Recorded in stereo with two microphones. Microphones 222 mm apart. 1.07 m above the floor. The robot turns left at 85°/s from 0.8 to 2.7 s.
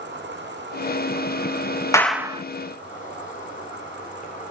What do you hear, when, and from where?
0.0 s an insect: 55° right, 2.5 m; by 4.5 s 145° left, 2.5 m
1.9 s a clap: 15° left, 0.8 m; by 2.4 s 30° right, 0.8 m